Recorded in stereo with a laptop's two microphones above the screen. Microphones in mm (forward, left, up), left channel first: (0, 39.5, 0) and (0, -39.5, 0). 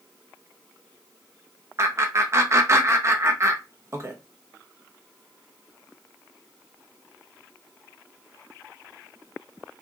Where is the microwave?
I don't hear a microwave.